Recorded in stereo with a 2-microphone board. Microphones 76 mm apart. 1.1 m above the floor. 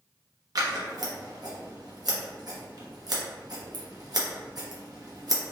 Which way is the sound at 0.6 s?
60° right (ahead or behind).